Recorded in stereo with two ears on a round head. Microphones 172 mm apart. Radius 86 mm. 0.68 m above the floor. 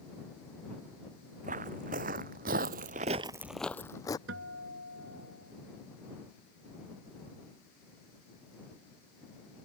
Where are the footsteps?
45° right (ahead or behind); by 4.2 s 20° left (ahead or behind).